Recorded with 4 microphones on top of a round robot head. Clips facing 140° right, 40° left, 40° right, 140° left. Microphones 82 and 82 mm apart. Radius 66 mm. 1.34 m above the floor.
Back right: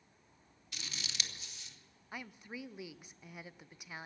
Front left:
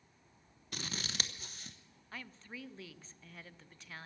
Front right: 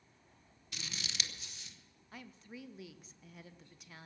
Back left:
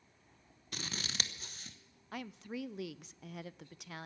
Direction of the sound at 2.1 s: 140° left.